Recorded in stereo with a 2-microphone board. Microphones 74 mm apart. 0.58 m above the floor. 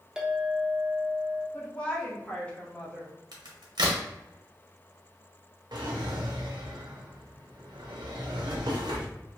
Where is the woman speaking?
20° left (ahead or behind), 1.0 m.